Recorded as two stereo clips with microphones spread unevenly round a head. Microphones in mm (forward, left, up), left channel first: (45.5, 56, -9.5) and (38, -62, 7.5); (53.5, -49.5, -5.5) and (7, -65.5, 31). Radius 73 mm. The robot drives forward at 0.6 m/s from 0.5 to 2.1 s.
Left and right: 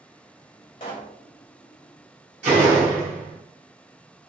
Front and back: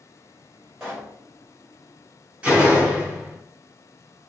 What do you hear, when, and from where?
0.8 s a pop: 145° left, 0.9 m; by 1.2 s 150° left, 1.1 m
2.4 s a door slam: 120° right, 1.6 m